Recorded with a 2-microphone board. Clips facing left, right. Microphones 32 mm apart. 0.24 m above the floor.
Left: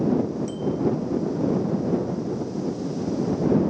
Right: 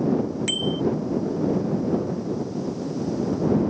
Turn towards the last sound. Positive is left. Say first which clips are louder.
# right 2 dB
turn(degrees=-75)  # may be behind; listen again after turning